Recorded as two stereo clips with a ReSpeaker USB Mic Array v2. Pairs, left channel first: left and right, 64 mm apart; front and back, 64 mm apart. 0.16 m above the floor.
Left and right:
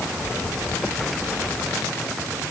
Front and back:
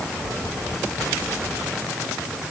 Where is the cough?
No cough in this recording.